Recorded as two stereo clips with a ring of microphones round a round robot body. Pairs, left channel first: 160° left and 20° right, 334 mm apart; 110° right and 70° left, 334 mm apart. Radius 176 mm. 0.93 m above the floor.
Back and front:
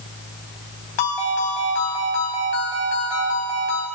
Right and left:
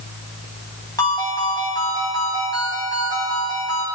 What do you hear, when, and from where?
1.0 s a ringtone: 170° left, 3.5 m